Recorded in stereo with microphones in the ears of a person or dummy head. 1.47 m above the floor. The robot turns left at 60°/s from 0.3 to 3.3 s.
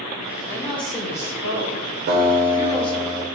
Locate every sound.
0.5 s a woman speaking: 175° left, 0.7 m; by 3.1 s 20° left, 0.7 m
2.1 s a guitar: 100° right, 0.6 m; by 3.2 s 170° right, 0.6 m